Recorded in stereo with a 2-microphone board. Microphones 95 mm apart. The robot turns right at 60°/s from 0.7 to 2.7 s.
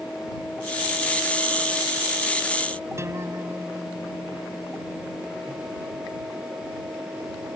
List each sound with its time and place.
3.0 s a guitar: 30° right (ahead or behind)